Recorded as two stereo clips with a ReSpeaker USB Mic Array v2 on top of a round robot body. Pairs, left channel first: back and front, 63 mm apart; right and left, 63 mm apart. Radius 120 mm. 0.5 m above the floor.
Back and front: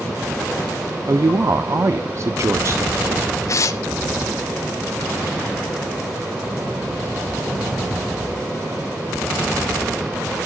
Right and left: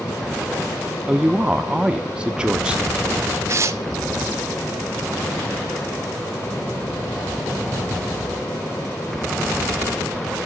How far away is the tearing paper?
About 0.9 m.